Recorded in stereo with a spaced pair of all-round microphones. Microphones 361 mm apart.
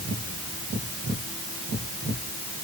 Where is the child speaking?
No child speaking in this recording.